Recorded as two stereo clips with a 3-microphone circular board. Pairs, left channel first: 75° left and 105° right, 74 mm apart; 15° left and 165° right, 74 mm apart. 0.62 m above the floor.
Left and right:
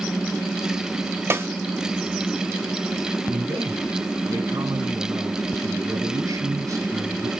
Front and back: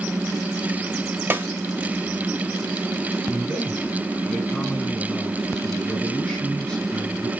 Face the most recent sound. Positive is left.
turn(degrees=-65)